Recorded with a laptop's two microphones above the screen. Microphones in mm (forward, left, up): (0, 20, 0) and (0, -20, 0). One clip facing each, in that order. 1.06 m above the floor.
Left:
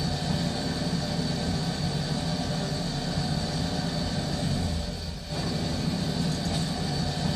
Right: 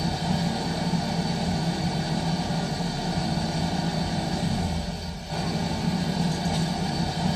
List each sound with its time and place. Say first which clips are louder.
0.0 s an engine running: right 3 dB; 55° right (ahead or behind), 1.5 m